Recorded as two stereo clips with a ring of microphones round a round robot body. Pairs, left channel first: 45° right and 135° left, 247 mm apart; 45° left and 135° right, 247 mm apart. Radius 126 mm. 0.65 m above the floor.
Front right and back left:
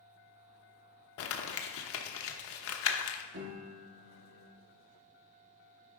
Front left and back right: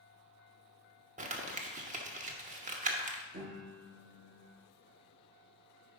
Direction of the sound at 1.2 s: 75° right.